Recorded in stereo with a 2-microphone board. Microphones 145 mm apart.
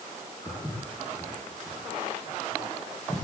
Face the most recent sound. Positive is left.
turn(degrees=0)  # may be behind; listen again after turning